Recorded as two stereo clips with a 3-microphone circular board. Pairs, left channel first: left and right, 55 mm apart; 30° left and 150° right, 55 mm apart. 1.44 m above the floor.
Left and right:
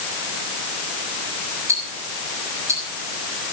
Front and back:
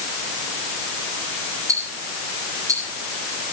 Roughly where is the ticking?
Behind right.